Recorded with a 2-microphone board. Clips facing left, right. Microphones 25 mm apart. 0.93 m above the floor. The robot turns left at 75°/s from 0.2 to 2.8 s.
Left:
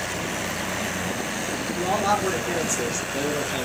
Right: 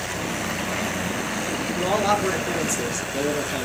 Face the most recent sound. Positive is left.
turn(degrees=160)